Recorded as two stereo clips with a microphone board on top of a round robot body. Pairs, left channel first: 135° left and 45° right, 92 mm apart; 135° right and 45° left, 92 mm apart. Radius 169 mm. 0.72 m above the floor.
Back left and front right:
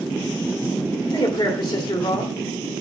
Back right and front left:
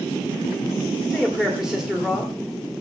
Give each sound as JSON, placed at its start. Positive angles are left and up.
{"t": 1.1, "sound": "a man speaking", "azimuth_deg": 125, "distance_m": 1.9}